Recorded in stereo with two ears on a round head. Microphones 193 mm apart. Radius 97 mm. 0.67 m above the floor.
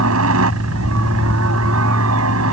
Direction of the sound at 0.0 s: 70° right (ahead or behind).